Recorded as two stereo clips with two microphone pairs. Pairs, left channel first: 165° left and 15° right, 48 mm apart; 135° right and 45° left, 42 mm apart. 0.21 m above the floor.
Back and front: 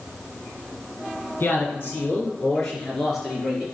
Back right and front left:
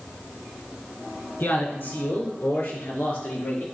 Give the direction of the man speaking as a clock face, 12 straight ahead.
5 o'clock.